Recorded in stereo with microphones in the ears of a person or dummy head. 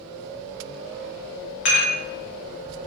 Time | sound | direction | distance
1.6 | dishes clattering | 40° left (ahead or behind) | 0.9 m